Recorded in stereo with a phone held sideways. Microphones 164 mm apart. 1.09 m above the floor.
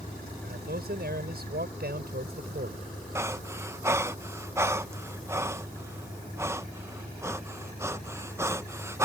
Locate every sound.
0.4 s a man speaking: 80° right
3.1 s breathing: 15° right (ahead or behind)